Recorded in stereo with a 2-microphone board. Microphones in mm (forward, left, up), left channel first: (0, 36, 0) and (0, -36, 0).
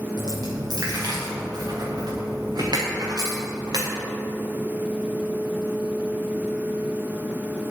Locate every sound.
0.2 s a dropped coin: 65° right (ahead or behind), 4.5 m